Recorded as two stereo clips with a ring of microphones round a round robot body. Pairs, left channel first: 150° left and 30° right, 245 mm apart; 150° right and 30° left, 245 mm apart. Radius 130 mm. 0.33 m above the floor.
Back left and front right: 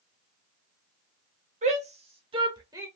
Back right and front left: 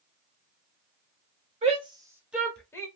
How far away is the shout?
About 1.4 m.